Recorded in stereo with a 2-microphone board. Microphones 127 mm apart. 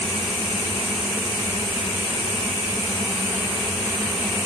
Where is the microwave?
No microwave in this recording.